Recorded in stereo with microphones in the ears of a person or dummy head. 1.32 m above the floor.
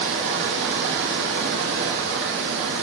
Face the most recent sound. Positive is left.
turn(degrees=-65)  # may be behind; listen again after turning